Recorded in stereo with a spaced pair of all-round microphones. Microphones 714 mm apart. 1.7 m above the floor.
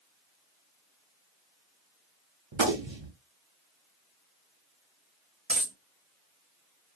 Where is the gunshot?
40° right (ahead or behind), 0.8 m.